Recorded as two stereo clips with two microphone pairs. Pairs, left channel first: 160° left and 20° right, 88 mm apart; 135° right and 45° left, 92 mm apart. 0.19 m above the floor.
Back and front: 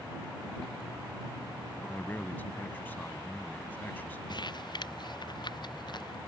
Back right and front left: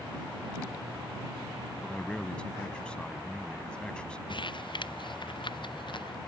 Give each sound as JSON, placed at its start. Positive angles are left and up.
{"t": 1.8, "sound": "a man speaking", "azimuth_deg": 175}
{"t": 4.3, "sound": "crumpling", "azimuth_deg": -165}